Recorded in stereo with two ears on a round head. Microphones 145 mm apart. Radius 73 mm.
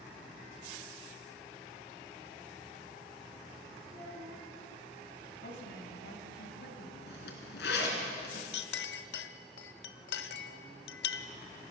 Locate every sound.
3.9 s a child speaking: 25° left (ahead or behind), 9 m
5.4 s a woman speaking: 70° left (ahead or behind), 3.5 m
7.1 s a zipper: 75° left (ahead or behind), 3.5 m
8.5 s a clink: 70° left (ahead or behind), 0.8 m